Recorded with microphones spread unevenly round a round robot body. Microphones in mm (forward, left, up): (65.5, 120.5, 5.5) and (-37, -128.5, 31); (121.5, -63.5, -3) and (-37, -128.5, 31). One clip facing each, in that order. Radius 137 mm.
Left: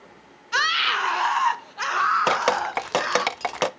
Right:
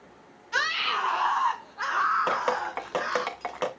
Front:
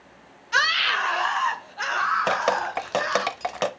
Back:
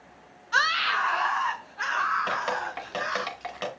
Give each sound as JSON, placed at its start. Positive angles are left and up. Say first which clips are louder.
{"t": 0.5, "sound": "a scream", "louder": "left 2 dB, front 1 dB", "azimuth_deg": 35, "distance_m": 1.1}
{"t": 2.3, "sound": "dripping", "louder": "left 5 dB, front 11 dB", "azimuth_deg": 55, "distance_m": 0.6}